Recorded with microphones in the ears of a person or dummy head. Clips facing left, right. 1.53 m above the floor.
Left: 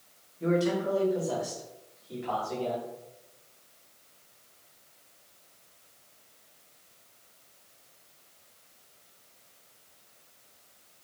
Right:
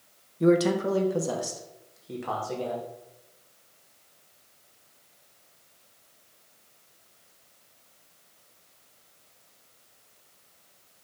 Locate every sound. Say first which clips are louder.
0.4 s a man speaking: right 5 dB; 65° right (ahead or behind), 0.6 m